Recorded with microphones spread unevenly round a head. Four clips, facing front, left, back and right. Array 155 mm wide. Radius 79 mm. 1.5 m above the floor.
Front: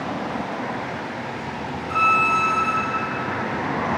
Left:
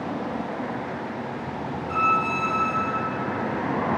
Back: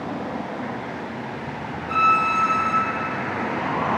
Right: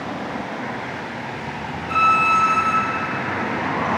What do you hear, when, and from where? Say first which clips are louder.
1.9 s a violin: right 6 dB, even; 150° right, 3 m